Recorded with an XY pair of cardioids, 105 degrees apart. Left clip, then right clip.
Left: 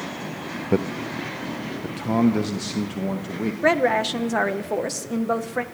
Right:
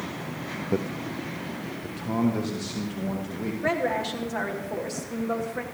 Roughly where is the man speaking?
Ahead left.